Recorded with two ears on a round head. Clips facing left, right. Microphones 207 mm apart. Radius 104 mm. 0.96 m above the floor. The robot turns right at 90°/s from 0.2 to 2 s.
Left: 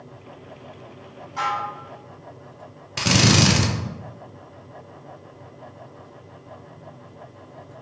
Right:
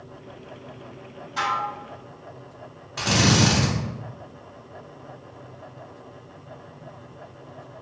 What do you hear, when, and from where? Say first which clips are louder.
1.4 s dishes clattering: left 1 dB; 130° right, 2 m; by 1.7 s 95° right, 2 m
3.0 s a drill: left 2 dB; 35° left (ahead or behind), 0.7 m